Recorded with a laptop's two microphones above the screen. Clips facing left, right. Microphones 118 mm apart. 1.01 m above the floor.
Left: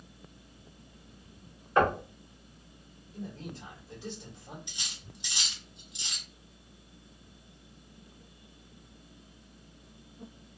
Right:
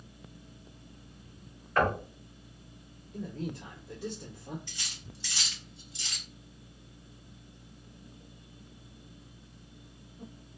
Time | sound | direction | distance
1.8 | knocking | 20° left (ahead or behind) | 0.9 m
3.1 | a man speaking | 80° right | 1.7 m
4.7 | cutlery clinking | 20° left (ahead or behind) | 0.6 m